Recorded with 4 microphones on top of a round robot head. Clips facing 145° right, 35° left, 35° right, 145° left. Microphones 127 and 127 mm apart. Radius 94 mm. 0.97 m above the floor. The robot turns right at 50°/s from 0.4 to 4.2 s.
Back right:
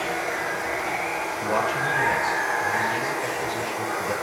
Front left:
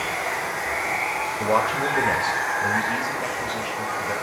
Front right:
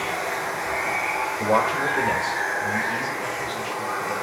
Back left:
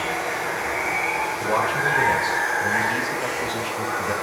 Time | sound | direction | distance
0.0 | running water | 15° left | 7 m
1.4 | a man speaking | straight ahead | 2 m